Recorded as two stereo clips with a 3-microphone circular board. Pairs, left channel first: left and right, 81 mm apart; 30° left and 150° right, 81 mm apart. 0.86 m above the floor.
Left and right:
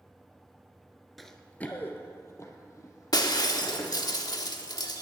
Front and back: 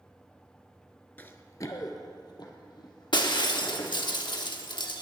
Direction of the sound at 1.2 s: Straight ahead.